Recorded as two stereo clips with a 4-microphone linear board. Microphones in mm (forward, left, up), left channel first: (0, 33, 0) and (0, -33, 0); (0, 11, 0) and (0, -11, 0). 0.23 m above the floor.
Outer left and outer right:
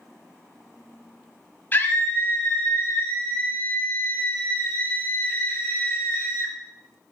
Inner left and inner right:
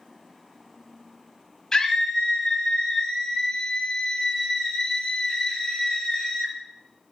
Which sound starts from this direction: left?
A scream, at 1.7 s.